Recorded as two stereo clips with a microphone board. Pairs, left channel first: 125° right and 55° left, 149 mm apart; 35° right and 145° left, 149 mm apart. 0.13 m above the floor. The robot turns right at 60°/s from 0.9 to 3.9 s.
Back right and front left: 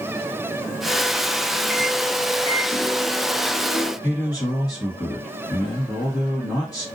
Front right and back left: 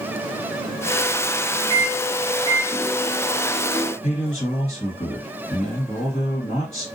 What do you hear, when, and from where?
1.7 s a microwave: 140° left, 1.2 m; by 3.9 s 85° right, 1.2 m
4.0 s a man speaking: 55° right, 2.0 m